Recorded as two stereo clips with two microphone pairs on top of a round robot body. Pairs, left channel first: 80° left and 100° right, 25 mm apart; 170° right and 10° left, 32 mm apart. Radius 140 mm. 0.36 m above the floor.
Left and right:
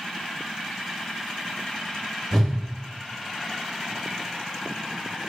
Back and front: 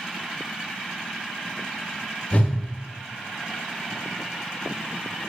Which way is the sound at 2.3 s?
160° left.